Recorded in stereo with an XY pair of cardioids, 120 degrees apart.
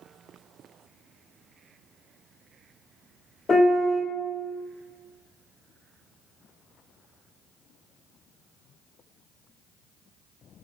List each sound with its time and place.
3.5 s a piano: 30° left, 1.0 m